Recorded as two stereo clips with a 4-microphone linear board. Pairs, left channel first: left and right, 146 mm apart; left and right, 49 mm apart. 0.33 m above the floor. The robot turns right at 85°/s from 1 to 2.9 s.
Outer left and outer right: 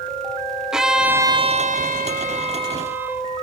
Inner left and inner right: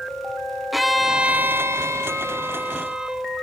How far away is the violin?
About 1.3 m.